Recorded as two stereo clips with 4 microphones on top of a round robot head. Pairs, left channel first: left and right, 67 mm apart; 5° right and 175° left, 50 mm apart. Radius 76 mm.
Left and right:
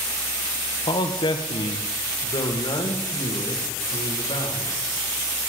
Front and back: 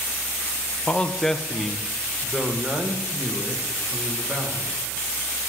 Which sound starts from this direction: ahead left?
A man speaking, at 0.9 s.